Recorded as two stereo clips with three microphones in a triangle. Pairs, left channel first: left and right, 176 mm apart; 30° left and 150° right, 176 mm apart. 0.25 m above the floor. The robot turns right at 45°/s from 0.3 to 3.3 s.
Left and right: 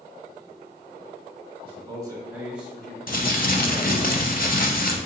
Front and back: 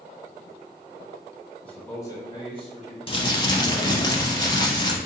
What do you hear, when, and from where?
1.6 s a man speaking: 50° right, 1.5 m; by 4.1 s 25° left, 1.5 m
3.1 s crumpling: 80° left, 0.6 m; by 5.0 s 90° left, 0.6 m